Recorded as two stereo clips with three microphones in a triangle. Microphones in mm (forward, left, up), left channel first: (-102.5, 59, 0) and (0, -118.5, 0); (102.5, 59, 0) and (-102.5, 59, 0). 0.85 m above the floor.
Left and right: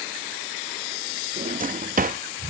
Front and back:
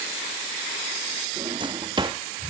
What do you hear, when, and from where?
1.4 s a drawer: 115° right